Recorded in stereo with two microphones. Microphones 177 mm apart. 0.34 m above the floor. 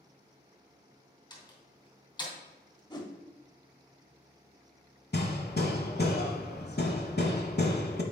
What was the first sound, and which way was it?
A door slam, 25° left (ahead or behind).